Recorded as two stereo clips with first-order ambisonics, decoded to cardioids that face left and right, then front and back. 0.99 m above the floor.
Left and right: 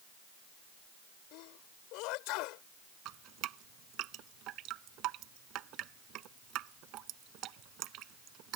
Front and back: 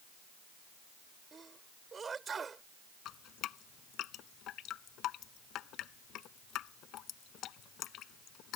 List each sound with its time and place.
1.3 s a sneeze: 110° left
3.0 s dripping: 50° right